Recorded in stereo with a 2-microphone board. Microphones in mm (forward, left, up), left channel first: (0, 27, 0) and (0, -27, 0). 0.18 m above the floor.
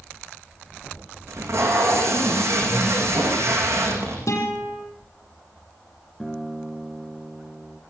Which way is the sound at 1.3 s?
65° right (ahead or behind).